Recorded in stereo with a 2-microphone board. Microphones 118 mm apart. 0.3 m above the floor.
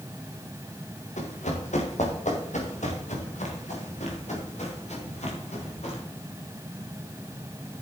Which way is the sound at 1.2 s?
80° left.